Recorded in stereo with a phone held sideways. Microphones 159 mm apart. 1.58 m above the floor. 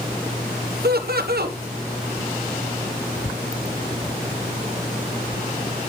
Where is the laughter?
80° right, 1.3 m.